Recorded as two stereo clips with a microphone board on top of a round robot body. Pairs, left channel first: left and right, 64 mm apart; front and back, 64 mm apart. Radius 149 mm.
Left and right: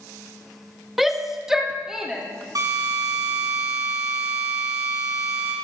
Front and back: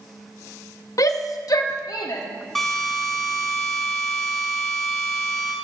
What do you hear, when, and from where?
1.0 s a shout: 5° right, 1.2 m; by 2.2 s 10° right, 2.5 m
2.5 s a drill: 85° right, 7 m